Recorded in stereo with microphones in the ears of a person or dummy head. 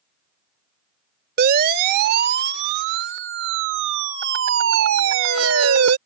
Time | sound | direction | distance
1.4 | a siren | 55° right (ahead or behind) | ?